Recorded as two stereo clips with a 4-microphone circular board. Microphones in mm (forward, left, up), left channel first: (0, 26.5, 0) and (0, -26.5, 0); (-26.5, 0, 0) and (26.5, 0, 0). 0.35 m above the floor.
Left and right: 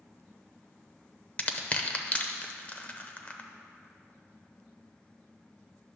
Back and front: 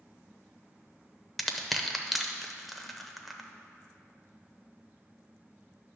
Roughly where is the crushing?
Left.